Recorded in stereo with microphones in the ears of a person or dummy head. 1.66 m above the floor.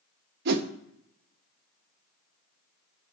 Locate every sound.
0.5 s a whoosh: 55° right (ahead or behind), 0.6 m